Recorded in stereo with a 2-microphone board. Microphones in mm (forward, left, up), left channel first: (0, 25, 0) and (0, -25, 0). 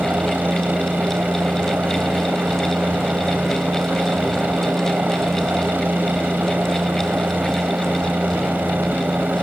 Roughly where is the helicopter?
Right.